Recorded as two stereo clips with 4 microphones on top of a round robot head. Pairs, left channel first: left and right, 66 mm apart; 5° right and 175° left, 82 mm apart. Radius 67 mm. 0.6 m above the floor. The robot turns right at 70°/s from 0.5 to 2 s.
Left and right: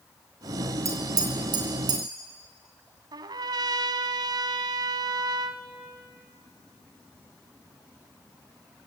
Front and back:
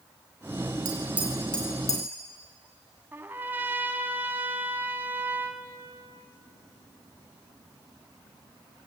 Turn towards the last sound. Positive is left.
turn(degrees=-110)